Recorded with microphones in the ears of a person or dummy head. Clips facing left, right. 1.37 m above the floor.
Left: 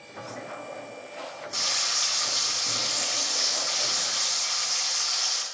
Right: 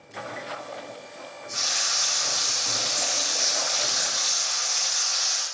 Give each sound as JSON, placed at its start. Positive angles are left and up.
{"t": 1.5, "sound": "frying", "side_deg": 55, "distance_m": 2.5}